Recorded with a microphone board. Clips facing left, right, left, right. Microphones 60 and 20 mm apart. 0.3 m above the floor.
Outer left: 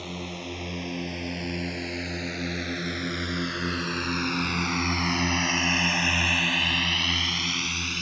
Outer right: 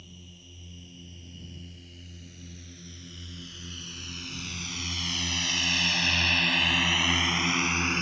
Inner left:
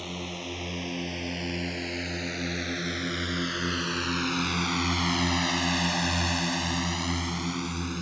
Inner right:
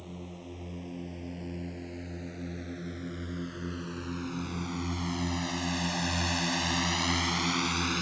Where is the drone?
80° left; by 8.0 s 30° right (ahead or behind).